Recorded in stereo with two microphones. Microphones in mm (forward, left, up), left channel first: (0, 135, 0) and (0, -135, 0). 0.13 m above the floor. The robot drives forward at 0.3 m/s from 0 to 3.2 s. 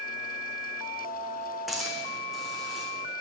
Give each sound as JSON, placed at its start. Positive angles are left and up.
{"t": 1.7, "sound": "a hiss", "side_deg": 0, "distance_m": 1.5}